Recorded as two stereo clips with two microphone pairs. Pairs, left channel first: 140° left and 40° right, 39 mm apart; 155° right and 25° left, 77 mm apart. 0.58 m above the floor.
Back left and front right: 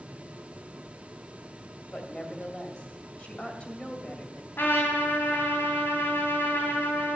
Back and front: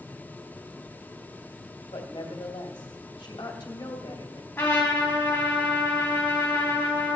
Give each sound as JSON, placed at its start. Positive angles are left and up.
{"t": 1.9, "sound": "a woman speaking", "azimuth_deg": -160, "distance_m": 2.0}
{"t": 4.6, "sound": "a trumpet", "azimuth_deg": 140, "distance_m": 3.5}